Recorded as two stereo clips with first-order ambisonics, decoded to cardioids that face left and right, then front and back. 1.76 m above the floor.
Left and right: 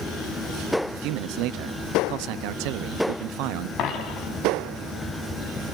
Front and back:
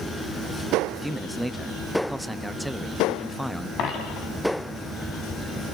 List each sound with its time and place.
0.9 s a man speaking: 90° right, 0.7 m
3.8 s a dropped coin: 45° left, 4.5 m